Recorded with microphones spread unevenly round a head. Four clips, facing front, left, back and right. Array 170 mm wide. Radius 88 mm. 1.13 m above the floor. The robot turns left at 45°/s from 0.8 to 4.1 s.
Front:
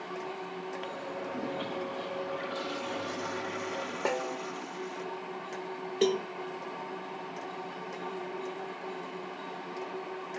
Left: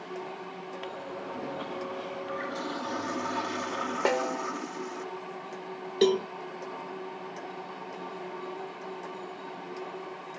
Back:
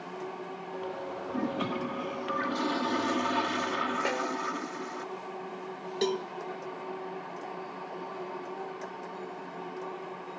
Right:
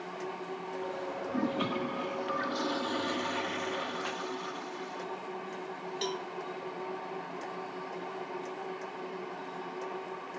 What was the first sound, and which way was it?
A toilet flushing, 105° right.